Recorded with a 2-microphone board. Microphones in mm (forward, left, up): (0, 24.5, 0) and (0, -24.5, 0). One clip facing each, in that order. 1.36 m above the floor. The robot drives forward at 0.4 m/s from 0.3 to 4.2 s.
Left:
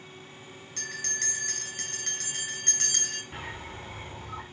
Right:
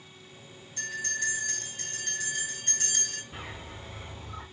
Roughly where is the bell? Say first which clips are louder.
Right 3 dB; left.